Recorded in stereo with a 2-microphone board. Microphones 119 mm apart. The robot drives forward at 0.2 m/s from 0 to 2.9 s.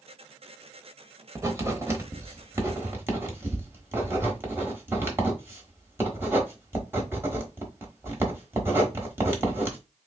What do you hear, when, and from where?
1.4 s writing: 25° right (ahead or behind), 0.8 m; by 9.8 s 20° right (ahead or behind), 1.0 m